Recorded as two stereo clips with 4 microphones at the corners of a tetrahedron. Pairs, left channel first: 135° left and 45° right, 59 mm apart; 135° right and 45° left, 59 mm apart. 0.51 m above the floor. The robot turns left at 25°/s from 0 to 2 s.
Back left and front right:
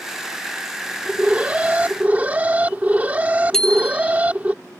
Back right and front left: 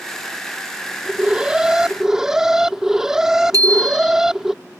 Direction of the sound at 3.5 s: 55° left.